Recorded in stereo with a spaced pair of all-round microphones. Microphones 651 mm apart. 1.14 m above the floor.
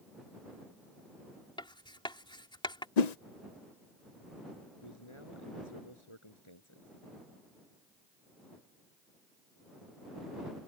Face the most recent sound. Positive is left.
turn(degrees=45)  # may be behind; listen again after turning